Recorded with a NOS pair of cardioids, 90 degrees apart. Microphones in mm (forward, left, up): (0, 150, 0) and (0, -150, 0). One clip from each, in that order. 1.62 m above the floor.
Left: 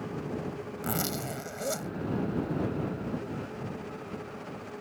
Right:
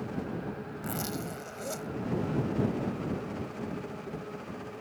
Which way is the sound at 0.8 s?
40° left.